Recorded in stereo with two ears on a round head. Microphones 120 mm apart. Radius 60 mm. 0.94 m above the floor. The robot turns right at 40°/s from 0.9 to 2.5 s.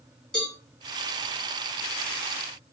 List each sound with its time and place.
0.3 s a cowbell: 5° left (ahead or behind), 1.8 m